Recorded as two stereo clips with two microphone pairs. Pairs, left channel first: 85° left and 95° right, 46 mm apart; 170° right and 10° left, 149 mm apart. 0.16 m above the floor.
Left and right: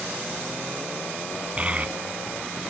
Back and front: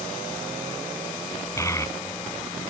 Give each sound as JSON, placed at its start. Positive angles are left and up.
{"t": 1.6, "sound": "a child speaking", "azimuth_deg": -120, "distance_m": 0.7}